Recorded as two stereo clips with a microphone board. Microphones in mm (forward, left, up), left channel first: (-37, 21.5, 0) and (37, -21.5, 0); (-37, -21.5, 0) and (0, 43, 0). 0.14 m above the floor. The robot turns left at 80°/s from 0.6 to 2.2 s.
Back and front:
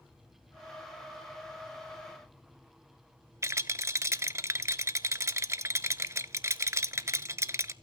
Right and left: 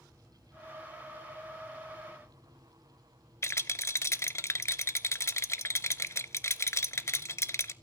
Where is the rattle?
80° right, 0.5 m.